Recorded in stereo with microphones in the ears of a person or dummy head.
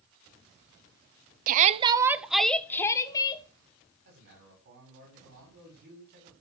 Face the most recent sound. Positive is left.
turn(degrees=-65)  # may be behind; listen again after turning